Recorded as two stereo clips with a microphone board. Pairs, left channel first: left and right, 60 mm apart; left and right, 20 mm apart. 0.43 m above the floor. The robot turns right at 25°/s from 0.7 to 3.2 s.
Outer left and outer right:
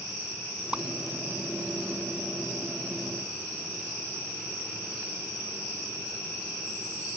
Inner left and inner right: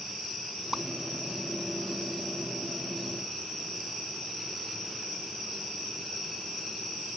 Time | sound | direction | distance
0.7 | a whoosh | 15° right (ahead or behind) | ?